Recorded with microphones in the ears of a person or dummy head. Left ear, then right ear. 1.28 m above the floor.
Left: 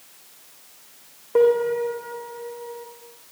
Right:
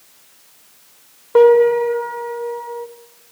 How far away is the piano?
About 3 m.